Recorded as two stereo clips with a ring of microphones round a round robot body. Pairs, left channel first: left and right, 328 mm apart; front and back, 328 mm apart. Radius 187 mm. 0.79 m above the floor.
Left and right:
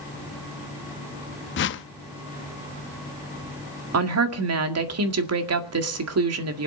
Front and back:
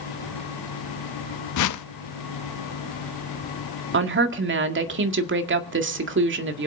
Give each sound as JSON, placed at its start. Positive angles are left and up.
{"t": 1.6, "sound": "a whoosh", "azimuth_deg": 35, "distance_m": 0.7}
{"t": 3.9, "sound": "a woman speaking", "azimuth_deg": -130, "distance_m": 2.0}